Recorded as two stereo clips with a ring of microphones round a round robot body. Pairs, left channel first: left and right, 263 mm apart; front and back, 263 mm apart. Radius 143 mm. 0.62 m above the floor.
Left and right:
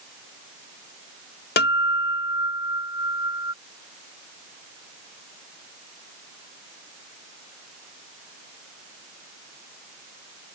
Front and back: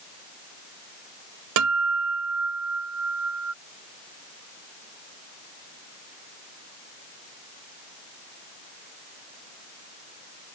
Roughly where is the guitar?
Behind left.